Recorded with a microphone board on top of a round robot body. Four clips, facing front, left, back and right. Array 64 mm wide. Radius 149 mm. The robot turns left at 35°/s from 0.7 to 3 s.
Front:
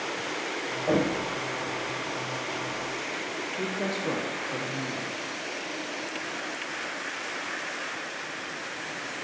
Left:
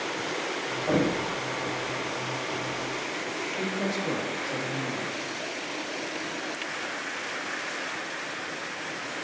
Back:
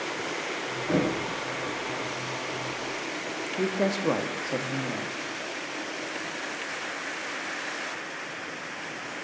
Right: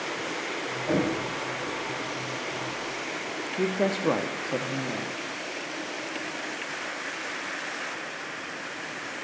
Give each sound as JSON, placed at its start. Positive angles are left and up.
{"t": 0.9, "sound": "knocking", "azimuth_deg": 20, "distance_m": 5.5}
{"t": 3.6, "sound": "a woman speaking", "azimuth_deg": -120, "distance_m": 0.9}